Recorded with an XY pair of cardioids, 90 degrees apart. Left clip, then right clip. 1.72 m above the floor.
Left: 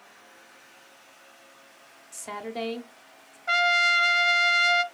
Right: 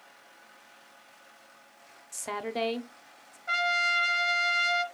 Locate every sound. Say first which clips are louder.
2.1 s a woman speaking: right 1 dB; 25° right, 0.8 m
3.5 s a trumpet: left 5 dB; 45° left, 0.6 m